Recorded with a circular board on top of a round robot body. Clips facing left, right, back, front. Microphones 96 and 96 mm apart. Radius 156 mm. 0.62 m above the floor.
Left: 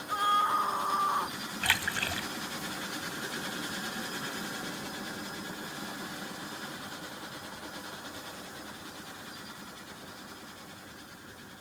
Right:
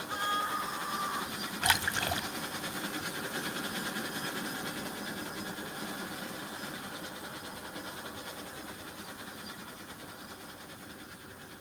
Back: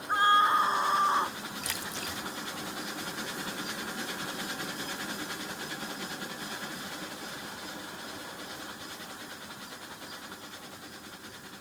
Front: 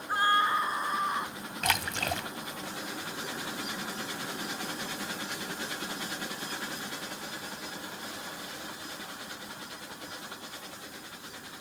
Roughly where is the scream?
Left.